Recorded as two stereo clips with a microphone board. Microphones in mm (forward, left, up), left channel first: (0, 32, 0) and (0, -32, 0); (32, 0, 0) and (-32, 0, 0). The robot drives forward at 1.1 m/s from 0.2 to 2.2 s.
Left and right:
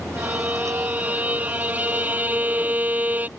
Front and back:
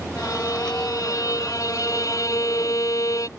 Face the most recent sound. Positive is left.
turn(degrees=-25)